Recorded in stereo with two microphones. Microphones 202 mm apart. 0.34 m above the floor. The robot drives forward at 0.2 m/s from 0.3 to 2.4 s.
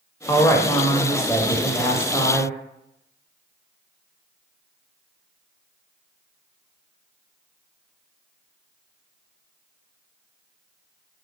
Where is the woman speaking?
15° left (ahead or behind), 1.0 m; by 2.5 s 10° left (ahead or behind), 1.2 m.